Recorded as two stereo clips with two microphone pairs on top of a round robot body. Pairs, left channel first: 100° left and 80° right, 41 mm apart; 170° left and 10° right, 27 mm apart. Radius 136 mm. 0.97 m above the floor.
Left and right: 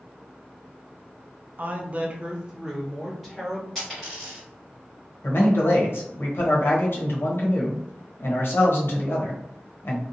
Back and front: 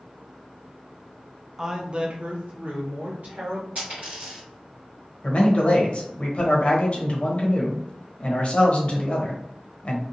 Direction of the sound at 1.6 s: 85° right.